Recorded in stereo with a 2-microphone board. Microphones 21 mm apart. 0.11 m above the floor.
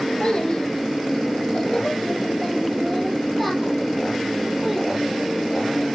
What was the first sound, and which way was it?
A child speaking, 45° left (ahead or behind).